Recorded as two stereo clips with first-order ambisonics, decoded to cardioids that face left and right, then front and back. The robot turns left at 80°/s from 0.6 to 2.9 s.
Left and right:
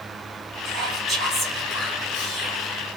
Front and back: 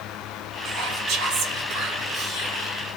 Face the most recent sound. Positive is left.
turn(degrees=75)